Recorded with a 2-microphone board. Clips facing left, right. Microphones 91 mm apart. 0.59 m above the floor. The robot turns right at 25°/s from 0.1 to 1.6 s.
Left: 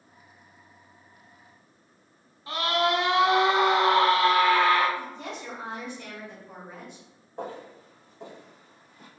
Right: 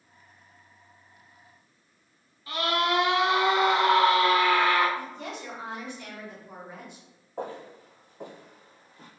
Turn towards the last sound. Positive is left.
turn(degrees=-35)  # may be behind; listen again after turning